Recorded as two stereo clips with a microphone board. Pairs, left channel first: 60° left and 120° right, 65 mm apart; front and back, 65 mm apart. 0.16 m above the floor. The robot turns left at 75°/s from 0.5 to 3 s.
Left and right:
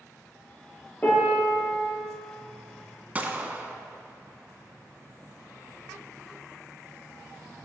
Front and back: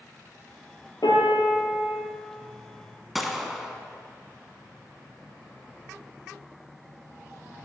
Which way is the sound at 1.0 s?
Straight ahead.